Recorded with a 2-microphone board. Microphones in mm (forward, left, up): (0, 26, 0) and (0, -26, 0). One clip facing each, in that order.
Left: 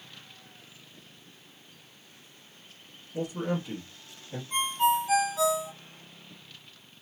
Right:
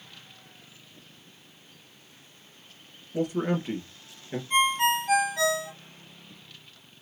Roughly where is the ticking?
I don't hear ticking.